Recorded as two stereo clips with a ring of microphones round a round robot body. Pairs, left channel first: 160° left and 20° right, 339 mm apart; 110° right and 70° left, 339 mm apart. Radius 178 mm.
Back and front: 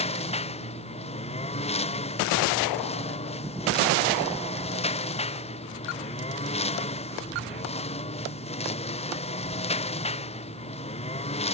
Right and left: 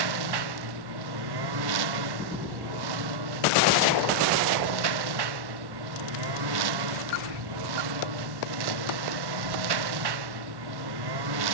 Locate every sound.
0.0 s a lawn mower: 85° left